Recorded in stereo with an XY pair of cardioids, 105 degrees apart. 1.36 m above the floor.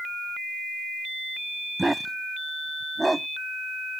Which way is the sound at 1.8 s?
10° right.